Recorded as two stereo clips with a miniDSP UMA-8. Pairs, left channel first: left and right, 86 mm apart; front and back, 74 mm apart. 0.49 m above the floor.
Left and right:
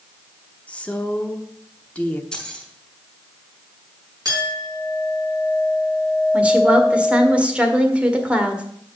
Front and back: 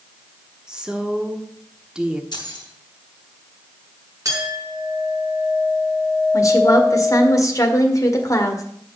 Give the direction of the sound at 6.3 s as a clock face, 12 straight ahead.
1 o'clock.